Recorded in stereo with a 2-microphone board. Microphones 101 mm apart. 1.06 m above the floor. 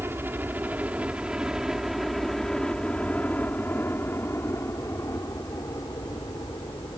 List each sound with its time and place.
0.0 s a helicopter: 20° right (ahead or behind); by 7.0 s 45° left (ahead or behind)